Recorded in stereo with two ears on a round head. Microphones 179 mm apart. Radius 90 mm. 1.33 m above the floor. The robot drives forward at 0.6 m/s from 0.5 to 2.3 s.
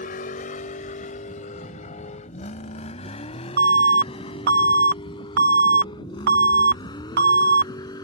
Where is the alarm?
55° right (ahead or behind).